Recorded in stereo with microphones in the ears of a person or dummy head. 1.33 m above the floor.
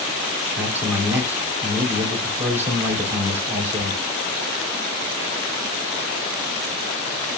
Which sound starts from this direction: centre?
A man speaking, at 0.6 s.